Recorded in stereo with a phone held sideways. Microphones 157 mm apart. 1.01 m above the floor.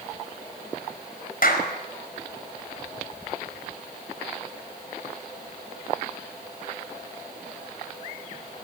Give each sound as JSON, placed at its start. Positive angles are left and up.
{"t": 1.4, "sound": "a clap", "side_deg": 65, "distance_m": 4.5}